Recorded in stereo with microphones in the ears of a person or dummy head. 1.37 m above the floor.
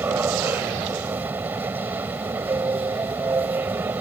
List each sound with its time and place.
0.0 s a machine running: 10° right (ahead or behind)